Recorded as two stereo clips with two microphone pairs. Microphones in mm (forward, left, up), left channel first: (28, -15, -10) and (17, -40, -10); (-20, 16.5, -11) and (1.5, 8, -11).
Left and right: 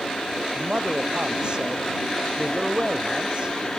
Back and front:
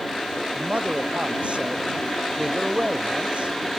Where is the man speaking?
55° right.